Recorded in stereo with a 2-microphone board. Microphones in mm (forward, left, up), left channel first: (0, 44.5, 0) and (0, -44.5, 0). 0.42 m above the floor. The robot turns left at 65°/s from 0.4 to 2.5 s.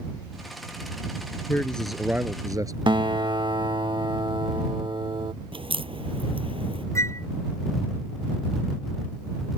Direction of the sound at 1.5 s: 25° left.